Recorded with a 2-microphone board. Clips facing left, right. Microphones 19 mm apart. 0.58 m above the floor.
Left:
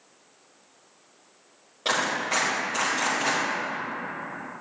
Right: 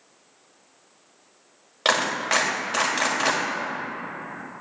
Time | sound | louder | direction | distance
1.9 | a clap | right 3 dB | 65° right (ahead or behind) | 2 m